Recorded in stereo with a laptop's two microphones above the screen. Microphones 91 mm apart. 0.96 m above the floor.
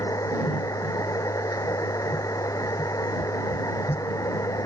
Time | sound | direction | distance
0.0 | a machine running | 35° left (ahead or behind) | ?